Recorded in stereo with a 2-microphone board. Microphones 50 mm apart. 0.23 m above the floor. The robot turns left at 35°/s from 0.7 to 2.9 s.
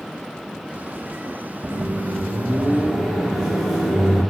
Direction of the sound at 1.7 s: 125° right.